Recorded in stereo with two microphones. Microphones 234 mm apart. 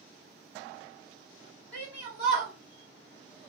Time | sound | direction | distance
1.7 | a shout | 5° right (ahead or behind) | 1.4 m